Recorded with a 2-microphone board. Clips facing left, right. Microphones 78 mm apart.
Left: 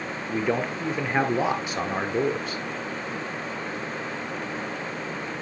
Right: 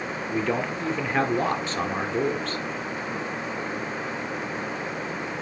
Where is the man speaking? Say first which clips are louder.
Left 1 dB; 15° left (ahead or behind), 1.7 m.